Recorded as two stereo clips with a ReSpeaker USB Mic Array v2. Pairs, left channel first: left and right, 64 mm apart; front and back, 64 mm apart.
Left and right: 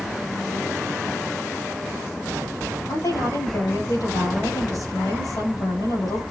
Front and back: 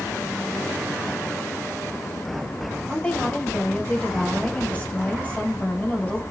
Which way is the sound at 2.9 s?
70° left.